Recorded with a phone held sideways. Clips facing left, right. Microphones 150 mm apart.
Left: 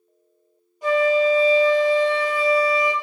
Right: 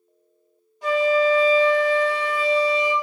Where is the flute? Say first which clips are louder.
Left 1 dB; 10° left (ahead or behind), 1.8 m.